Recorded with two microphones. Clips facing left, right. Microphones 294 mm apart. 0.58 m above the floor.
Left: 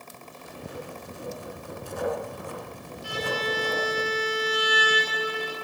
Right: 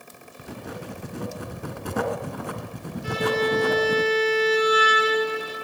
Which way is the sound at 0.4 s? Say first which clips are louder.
Right 3 dB; 80° right.